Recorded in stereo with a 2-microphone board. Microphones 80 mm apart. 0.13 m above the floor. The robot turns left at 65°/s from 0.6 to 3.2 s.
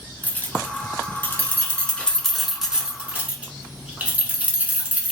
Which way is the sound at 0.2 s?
20° left (ahead or behind).